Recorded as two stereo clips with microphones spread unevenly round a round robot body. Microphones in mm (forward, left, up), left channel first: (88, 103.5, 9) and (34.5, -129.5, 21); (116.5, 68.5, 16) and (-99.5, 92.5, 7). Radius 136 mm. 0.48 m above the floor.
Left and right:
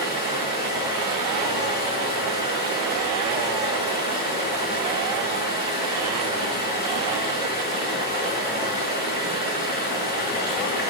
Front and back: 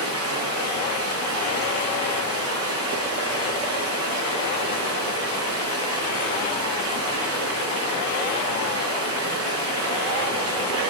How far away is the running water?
About 4 m.